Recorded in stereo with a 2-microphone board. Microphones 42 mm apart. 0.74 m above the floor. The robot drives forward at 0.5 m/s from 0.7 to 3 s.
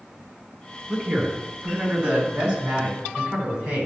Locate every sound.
0.9 s a man speaking: 25° right (ahead or behind), 4.5 m; by 3.9 s 20° right (ahead or behind), 5.5 m